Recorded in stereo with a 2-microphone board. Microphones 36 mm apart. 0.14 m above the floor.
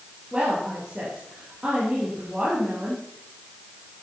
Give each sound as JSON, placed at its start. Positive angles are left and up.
{"t": 0.3, "sound": "a woman speaking", "side_deg": -20, "distance_m": 5.5}